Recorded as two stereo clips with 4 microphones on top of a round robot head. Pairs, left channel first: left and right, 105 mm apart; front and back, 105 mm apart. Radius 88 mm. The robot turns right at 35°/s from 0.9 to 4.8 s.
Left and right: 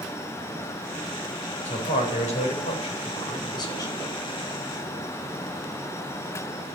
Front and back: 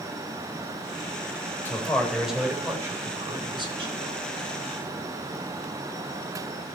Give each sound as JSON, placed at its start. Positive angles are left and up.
{"t": 1.6, "sound": "a man speaking", "azimuth_deg": 70, "distance_m": 4.0}